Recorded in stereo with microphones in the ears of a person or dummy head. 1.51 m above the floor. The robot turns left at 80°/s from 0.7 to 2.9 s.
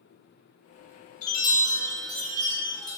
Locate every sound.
1.2 s a chime: 45° left, 1.8 m; by 3.0 s 90° right, 1.8 m